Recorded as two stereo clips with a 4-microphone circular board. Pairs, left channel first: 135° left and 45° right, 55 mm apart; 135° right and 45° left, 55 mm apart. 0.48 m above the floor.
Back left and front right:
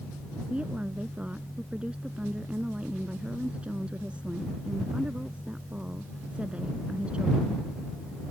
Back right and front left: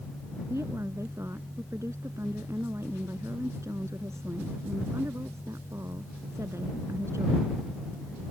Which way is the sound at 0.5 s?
20° left.